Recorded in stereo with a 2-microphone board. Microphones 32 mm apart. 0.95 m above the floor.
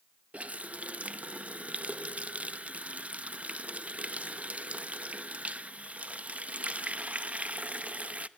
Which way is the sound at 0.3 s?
45° right (ahead or behind).